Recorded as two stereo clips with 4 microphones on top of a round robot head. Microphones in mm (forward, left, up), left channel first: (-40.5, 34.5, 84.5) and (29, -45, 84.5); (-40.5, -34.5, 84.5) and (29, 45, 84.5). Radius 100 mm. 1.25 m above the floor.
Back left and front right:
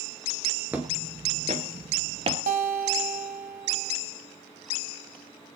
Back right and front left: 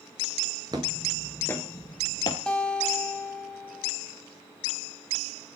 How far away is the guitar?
About 3 m.